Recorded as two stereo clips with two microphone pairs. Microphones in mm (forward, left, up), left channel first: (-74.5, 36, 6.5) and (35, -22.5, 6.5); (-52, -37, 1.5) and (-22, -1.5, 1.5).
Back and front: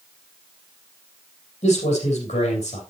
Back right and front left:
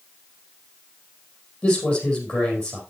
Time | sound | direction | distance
1.6 | a man speaking | 175° right | 4.5 m